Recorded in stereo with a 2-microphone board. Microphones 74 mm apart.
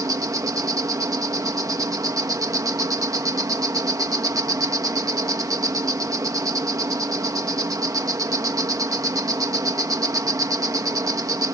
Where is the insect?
60° right (ahead or behind).